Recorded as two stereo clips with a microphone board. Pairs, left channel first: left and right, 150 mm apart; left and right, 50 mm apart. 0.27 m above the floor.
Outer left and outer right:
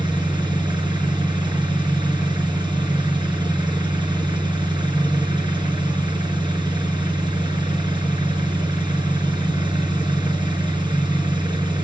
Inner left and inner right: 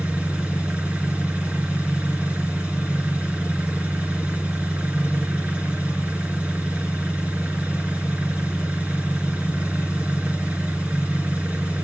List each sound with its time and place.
0.0 s an engine running: 30° right (ahead or behind), 3.5 m